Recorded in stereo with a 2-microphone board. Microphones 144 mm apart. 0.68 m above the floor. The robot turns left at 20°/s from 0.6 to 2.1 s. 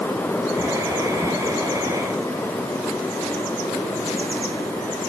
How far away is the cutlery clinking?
No cutlery clinking in this recording.